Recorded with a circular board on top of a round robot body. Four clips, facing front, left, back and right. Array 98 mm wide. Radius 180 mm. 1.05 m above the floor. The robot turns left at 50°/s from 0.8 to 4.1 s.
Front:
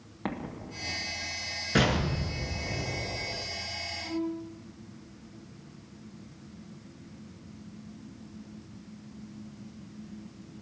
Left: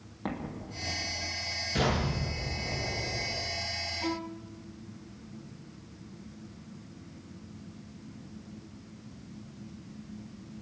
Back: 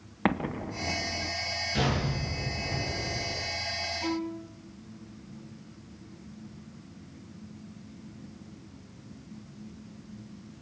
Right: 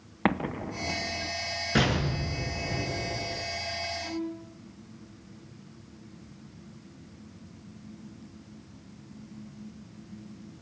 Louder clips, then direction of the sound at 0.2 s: Right 9 dB, back 7 dB; 125° right.